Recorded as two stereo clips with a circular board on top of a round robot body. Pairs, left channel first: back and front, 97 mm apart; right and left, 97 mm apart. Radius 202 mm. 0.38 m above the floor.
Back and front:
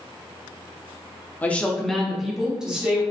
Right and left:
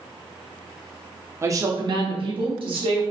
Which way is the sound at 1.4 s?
120° left.